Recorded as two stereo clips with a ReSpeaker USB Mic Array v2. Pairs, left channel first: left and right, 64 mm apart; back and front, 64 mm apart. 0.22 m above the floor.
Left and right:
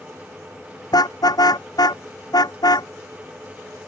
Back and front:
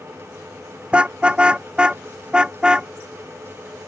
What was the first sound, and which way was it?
A car horn, 75° left.